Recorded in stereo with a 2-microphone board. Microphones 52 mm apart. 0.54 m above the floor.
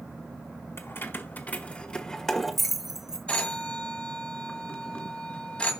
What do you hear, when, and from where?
0.8 s keys jangling: 50° left (ahead or behind), 1.3 m; by 3.2 s 15° right (ahead or behind), 1.5 m
3.3 s a phone ringing: 20° left (ahead or behind), 2.0 m